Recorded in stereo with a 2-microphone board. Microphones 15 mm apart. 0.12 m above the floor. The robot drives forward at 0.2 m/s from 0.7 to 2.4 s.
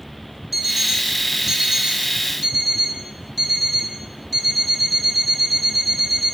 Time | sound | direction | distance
0.5 | an alarm clock | 10° right (ahead or behind) | 1.1 m